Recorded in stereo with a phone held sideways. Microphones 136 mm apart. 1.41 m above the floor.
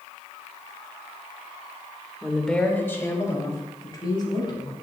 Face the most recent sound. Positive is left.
turn(degrees=35)  # may be behind; listen again after turning